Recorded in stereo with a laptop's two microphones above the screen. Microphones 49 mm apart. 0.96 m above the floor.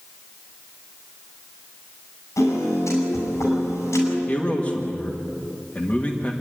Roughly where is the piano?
Left.